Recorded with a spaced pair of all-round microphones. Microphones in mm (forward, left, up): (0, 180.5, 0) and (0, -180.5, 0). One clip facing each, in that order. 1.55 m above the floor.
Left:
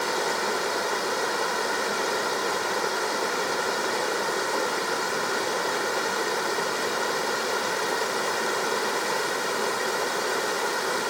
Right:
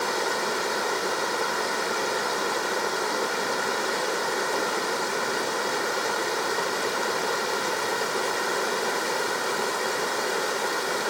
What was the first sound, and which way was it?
Only background noise.